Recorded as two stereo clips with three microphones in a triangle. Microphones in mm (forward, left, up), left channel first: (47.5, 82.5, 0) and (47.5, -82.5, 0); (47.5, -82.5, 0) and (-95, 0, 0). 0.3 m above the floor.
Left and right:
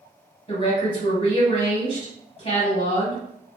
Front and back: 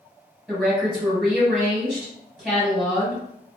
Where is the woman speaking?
65° left, 2.0 m.